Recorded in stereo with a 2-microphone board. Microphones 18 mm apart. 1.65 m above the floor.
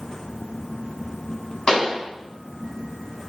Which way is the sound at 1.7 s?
55° left (ahead or behind).